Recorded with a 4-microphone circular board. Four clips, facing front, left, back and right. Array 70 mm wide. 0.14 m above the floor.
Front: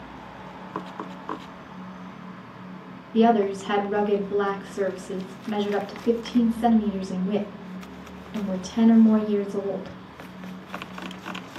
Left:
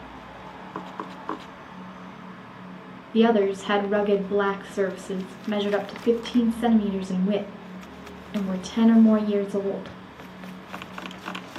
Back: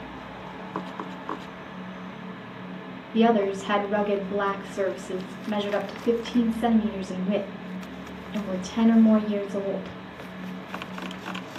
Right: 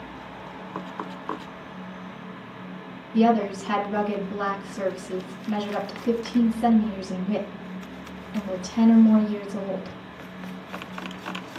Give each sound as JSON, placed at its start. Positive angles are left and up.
{"t": 3.1, "sound": "a woman speaking", "azimuth_deg": 95, "distance_m": 1.3}